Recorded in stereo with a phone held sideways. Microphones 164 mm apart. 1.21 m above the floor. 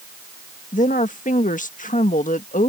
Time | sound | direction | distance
0.7 | a woman speaking | 60° left (ahead or behind) | ?